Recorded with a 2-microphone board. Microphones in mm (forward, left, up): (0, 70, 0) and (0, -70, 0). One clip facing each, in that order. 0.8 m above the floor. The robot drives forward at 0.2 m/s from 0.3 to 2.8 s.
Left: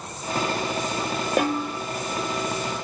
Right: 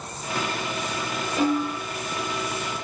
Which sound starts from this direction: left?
A snare drum, at 1.4 s.